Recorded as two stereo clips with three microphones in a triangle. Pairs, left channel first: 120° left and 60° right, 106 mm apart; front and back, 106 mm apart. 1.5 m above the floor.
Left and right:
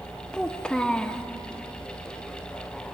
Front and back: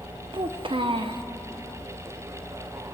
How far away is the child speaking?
About 0.6 m.